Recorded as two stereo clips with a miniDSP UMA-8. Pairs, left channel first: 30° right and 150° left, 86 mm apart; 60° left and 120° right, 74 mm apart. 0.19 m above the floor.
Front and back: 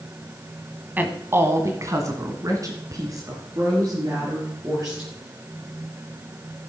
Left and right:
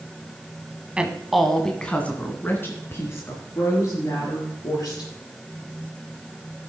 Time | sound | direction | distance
1.0 | a woman speaking | 175° right | 1.3 m